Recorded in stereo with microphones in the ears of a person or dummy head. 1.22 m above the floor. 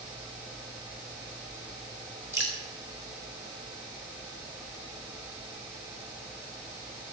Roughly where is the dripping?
Centre.